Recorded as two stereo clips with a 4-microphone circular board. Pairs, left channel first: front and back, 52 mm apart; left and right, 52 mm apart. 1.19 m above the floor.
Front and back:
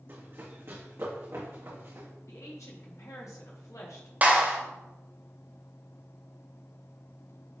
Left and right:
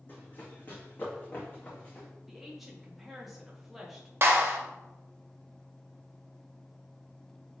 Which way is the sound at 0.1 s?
140° left.